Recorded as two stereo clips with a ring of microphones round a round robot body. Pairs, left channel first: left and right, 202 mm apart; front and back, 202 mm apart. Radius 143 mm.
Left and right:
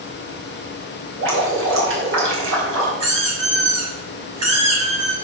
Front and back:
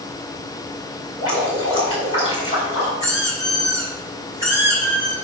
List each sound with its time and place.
1.2 s dripping: 75° right, 5.5 m
3.0 s a squeak: 100° right, 5.5 m